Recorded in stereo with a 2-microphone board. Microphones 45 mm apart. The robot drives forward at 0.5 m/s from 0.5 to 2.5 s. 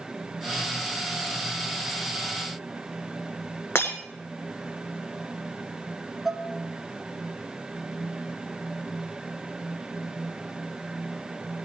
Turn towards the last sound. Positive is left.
turn(degrees=0)  # may be behind; listen again after turning